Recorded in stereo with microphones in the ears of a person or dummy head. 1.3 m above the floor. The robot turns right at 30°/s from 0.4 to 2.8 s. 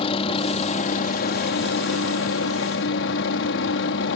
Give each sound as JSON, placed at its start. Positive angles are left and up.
{"t": 0.0, "sound": "a helicopter", "azimuth_deg": 35}